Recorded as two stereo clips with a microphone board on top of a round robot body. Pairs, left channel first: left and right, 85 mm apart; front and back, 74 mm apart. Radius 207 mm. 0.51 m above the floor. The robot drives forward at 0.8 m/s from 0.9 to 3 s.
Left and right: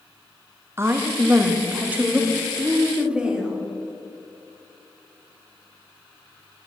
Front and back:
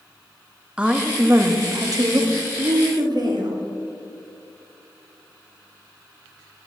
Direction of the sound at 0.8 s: 115° right.